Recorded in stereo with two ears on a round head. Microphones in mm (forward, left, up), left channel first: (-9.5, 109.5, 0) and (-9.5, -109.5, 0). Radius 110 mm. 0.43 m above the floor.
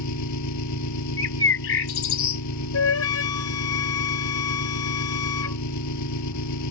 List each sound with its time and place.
0.0 s an engine running: 80° left
1.2 s a bird: 60° left (ahead or behind)
2.7 s a flute: 65° left (ahead or behind)